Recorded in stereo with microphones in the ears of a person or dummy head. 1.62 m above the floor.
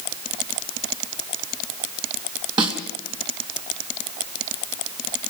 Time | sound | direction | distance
2.6 | a snare drum | 30° right (ahead or behind) | 3 m